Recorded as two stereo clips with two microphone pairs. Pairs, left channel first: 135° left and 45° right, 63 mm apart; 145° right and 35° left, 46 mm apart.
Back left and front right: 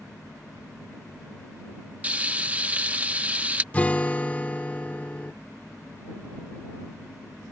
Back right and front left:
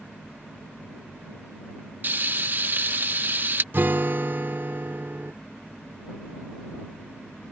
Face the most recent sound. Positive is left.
turn(degrees=70)